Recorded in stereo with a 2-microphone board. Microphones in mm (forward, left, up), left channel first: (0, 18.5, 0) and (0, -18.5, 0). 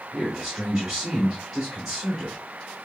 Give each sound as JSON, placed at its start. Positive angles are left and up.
{"t": 0.1, "sound": "a man speaking", "side_deg": -5, "distance_m": 1.5}